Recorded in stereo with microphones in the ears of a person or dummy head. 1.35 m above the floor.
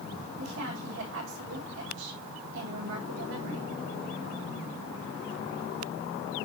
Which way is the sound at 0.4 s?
65° right (ahead or behind).